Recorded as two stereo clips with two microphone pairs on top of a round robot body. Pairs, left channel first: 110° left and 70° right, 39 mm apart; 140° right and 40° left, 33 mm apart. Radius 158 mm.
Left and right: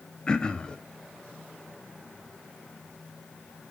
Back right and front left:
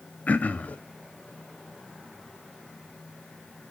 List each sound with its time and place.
0.3 s throat clearing: straight behind, 0.7 m